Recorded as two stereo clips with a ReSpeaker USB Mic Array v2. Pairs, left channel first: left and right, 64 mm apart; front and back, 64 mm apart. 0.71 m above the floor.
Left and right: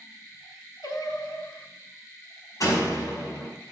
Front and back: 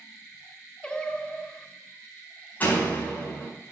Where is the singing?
70° left, 1.0 m.